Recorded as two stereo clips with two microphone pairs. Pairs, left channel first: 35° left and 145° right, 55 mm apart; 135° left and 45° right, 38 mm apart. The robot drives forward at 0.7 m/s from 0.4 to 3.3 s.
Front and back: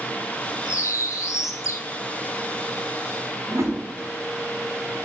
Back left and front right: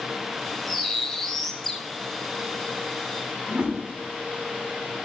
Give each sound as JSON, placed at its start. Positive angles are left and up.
{"t": 0.7, "sound": "a bird", "azimuth_deg": 45, "distance_m": 3.5}
{"t": 3.5, "sound": "a whoosh", "azimuth_deg": -115, "distance_m": 6.0}